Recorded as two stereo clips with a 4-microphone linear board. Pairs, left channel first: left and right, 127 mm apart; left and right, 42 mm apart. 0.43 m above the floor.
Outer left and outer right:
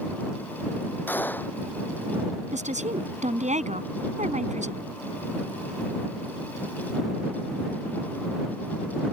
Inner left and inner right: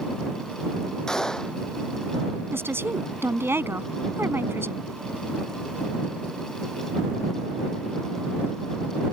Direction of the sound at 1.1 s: 15° left (ahead or behind).